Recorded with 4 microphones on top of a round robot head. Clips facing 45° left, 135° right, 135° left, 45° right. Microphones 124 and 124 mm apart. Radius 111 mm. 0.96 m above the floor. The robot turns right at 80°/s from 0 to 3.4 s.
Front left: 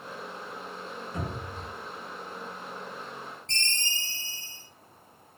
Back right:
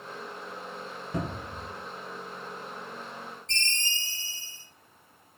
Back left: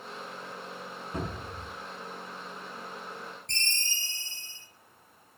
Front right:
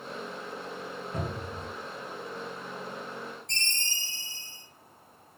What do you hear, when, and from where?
1.1 s a cupboard door: 145° right, 0.6 m; by 1.7 s 105° right, 0.6 m
3.5 s a ringtone: 100° left, 1.5 m